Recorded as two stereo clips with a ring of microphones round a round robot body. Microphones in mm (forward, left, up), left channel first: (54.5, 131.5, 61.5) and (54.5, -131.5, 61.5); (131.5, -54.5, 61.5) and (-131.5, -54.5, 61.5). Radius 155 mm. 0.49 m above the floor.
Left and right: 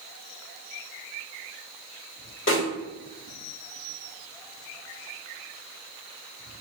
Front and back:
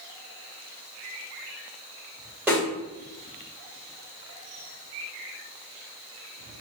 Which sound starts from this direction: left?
A snare drum, at 2.5 s.